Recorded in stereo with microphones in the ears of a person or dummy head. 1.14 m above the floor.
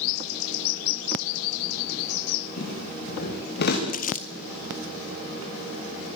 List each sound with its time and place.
2.6 s footsteps: 45° left (ahead or behind), 8.5 m; by 3.8 s 55° left (ahead or behind), 8 m
3.9 s crumpling: 40° left (ahead or behind), 1.7 m